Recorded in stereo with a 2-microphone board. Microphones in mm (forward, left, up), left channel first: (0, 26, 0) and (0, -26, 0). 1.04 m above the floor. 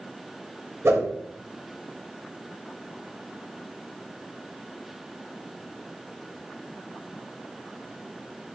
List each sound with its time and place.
0.8 s a whoosh: 70° right (ahead or behind), 1.8 m